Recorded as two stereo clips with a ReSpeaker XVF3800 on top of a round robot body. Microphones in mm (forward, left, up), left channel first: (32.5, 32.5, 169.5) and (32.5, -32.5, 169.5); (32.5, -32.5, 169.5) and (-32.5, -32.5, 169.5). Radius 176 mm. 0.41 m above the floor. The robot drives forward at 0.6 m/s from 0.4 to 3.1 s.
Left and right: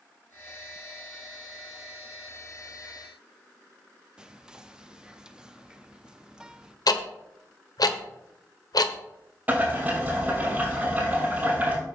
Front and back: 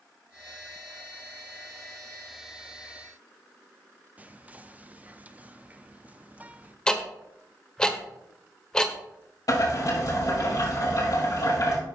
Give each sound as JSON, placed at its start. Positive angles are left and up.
{"t": 4.2, "sound": "whispering", "azimuth_deg": -155, "distance_m": 0.9}
{"t": 6.9, "sound": "ticking", "azimuth_deg": 75, "distance_m": 1.2}
{"t": 9.5, "sound": "boiling", "azimuth_deg": -25, "distance_m": 5.0}